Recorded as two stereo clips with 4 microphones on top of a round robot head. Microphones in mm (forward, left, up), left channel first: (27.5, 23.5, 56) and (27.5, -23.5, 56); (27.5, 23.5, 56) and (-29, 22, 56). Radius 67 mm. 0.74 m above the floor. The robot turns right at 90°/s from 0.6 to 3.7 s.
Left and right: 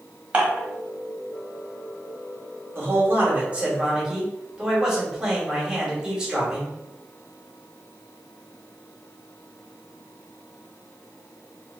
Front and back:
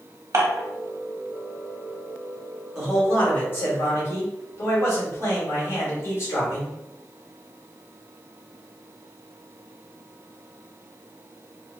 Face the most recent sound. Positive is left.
turn(degrees=-20)